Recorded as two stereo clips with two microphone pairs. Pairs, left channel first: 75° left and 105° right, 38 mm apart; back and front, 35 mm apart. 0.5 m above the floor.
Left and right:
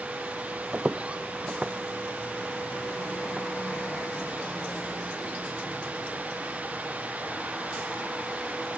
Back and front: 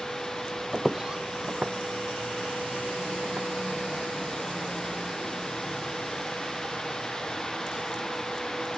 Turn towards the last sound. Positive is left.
turn(degrees=-35)